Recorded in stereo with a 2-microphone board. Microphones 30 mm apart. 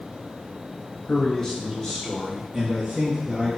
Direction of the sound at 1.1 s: 25° left (ahead or behind).